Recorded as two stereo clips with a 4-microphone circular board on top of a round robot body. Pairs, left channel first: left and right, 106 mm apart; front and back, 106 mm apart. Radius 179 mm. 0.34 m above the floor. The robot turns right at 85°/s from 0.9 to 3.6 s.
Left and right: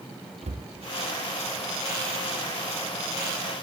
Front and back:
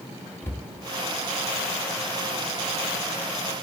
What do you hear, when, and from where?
0.4 s a cupboard door: 70° right, 1.8 m